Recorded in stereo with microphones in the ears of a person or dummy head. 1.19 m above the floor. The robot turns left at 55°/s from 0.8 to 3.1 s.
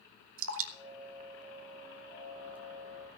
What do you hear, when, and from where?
0.4 s dripping: 75° right (ahead or behind), 1.3 m; by 2.6 s 5° right (ahead or behind), 1.3 m